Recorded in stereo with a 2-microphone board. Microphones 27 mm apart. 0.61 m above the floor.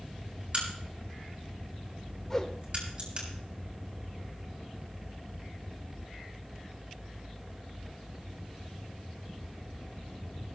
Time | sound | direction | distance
0.5 | a crack | 40° right (ahead or behind) | 6.5 m
2.3 | a whoosh | 20° left (ahead or behind) | 1.6 m